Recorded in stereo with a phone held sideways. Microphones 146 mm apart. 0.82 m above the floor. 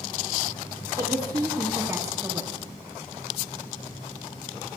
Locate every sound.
1.0 s a woman speaking: 20° right (ahead or behind), 0.7 m